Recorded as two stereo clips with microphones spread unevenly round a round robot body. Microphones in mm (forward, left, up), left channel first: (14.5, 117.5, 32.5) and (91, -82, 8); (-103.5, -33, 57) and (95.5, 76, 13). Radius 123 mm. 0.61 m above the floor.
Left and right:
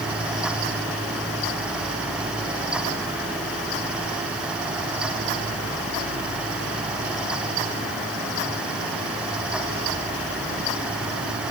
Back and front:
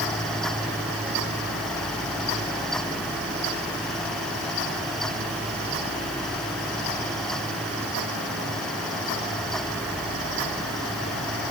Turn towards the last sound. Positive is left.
No sound to turn to.